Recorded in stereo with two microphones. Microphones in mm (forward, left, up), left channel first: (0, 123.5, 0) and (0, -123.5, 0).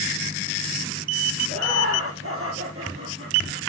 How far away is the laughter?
About 3 m.